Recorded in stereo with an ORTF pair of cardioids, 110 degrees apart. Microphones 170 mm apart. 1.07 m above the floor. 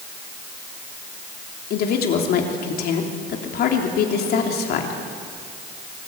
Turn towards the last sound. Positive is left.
turn(degrees=65)